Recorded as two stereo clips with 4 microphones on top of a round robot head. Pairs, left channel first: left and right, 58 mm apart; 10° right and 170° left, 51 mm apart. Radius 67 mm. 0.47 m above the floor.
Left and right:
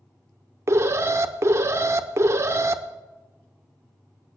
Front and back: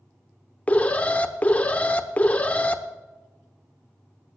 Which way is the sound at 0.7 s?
65° right.